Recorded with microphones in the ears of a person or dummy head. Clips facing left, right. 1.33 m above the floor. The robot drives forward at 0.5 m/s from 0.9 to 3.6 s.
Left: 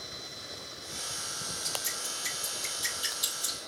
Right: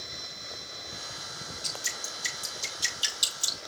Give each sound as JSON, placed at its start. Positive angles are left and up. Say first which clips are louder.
{"t": 1.6, "sound": "dripping", "louder": "left 1 dB", "side_deg": -45, "distance_m": 5.0}